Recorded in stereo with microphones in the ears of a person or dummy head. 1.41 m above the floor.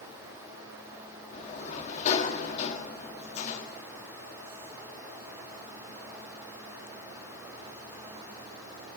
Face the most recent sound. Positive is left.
turn(degrees=40)  # may be behind; listen again after turning